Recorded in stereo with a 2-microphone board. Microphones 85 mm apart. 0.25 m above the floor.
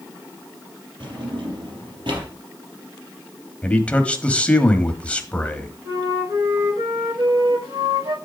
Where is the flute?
40° right (ahead or behind), 6.5 m.